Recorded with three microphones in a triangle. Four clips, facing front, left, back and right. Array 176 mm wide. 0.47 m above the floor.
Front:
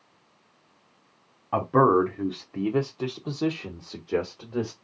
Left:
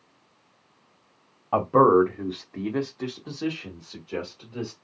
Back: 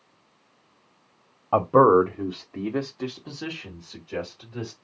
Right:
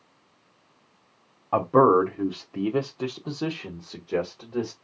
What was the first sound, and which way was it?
A man speaking, 170° right.